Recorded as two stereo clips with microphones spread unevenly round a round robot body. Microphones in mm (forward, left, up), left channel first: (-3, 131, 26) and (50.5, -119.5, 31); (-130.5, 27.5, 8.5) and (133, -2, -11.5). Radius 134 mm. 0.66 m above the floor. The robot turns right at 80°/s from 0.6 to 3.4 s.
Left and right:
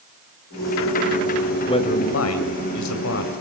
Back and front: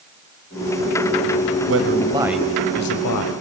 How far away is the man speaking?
About 3 m.